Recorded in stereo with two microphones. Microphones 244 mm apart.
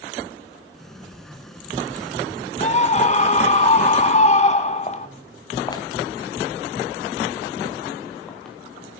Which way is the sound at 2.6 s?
30° left (ahead or behind).